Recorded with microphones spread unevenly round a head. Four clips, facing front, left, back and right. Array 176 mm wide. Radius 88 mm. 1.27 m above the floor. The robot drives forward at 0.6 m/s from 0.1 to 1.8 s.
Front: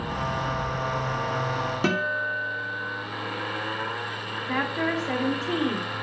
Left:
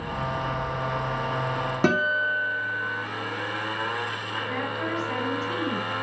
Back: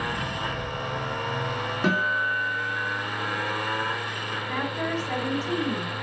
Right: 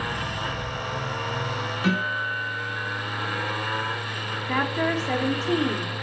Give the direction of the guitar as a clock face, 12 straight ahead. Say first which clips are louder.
Left 3 dB, back 4 dB; 10 o'clock.